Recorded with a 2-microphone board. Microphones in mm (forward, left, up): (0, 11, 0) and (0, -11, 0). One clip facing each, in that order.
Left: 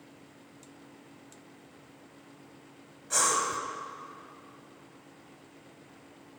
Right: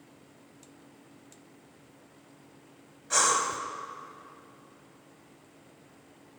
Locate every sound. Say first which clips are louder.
3.1 s breathing: right 2 dB; 15° right (ahead or behind), 1.1 m